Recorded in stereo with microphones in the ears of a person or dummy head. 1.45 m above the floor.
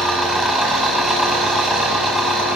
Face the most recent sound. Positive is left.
turn(degrees=0)  # may be behind; listen again after turning